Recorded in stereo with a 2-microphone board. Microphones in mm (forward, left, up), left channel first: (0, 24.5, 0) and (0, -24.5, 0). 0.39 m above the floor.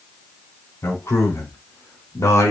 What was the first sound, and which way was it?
A man speaking, 65° left (ahead or behind).